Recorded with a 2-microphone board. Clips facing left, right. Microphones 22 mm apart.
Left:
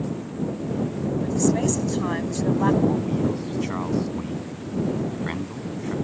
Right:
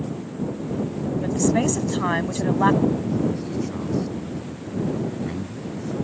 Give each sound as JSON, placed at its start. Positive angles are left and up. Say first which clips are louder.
{"t": 1.2, "sound": "a woman speaking", "louder": "right 1 dB", "side_deg": -25}
{"t": 2.8, "sound": "a man speaking", "louder": "even", "side_deg": 40}